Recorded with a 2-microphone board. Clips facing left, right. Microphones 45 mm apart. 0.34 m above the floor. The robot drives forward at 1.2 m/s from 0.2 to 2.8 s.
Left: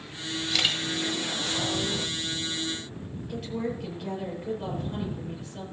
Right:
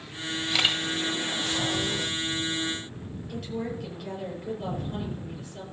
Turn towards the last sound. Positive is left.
turn(degrees=10)  # may be behind; listen again after turning